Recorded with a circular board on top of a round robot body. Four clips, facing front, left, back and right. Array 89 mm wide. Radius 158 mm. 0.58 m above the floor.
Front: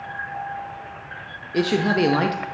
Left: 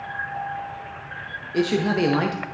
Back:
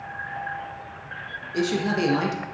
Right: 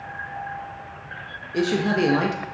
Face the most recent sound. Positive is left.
turn(degrees=20)